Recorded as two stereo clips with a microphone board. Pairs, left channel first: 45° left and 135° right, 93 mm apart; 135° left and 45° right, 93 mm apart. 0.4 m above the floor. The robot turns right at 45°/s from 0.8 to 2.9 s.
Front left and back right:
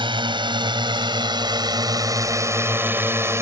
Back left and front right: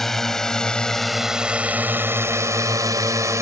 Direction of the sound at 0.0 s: 140° right.